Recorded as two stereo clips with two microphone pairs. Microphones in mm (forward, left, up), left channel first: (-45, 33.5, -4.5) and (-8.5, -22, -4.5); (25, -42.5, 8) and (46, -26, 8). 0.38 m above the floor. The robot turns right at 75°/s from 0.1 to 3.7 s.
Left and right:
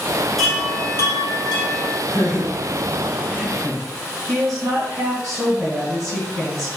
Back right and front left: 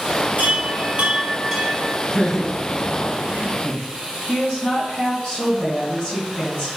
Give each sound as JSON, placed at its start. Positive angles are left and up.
{"t": 0.4, "sound": "a chime", "azimuth_deg": 30, "distance_m": 2.5}
{"t": 2.1, "sound": "laughter", "azimuth_deg": 145, "distance_m": 2.0}
{"t": 4.3, "sound": "a woman speaking", "azimuth_deg": -90, "distance_m": 2.5}